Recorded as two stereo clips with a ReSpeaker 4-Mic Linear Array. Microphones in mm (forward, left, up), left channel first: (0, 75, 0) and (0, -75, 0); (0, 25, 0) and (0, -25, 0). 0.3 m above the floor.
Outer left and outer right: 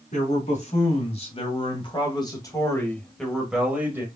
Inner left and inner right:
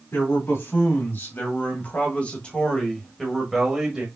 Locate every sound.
0.1 s a man speaking: 55° left (ahead or behind), 2 m; by 4.1 s 15° right (ahead or behind), 1.3 m